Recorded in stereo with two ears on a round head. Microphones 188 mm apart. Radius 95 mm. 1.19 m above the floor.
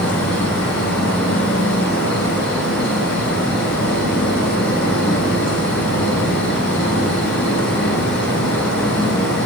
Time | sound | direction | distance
0.0 | an insect | 5° left (ahead or behind) | 7.5 m